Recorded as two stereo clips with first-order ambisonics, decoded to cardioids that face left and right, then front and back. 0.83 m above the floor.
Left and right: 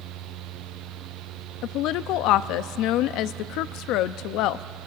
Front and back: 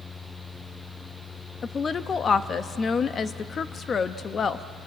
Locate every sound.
1.6 s a woman speaking: 65° left, 0.6 m